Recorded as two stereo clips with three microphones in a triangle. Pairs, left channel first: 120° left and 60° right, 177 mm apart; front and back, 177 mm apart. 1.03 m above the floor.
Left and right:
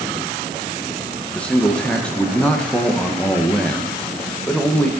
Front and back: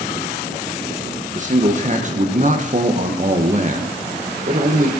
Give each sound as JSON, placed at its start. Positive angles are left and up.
{"t": 1.3, "sound": "a man speaking", "azimuth_deg": -160, "distance_m": 1.1}